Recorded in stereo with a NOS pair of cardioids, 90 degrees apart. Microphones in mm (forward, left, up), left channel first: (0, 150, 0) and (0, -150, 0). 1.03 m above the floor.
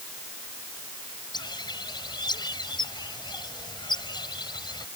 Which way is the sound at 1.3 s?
15° left.